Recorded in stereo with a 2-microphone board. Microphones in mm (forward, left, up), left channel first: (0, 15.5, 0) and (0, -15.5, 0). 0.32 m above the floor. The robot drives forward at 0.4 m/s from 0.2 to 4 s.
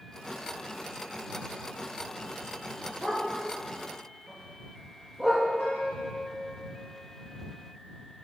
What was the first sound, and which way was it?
A dog barking, 10° left (ahead or behind).